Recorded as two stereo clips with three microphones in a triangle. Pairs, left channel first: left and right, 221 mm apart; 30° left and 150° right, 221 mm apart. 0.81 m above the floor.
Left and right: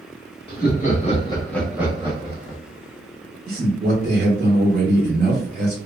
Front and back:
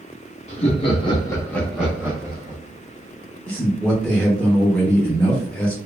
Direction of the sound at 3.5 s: 55° right.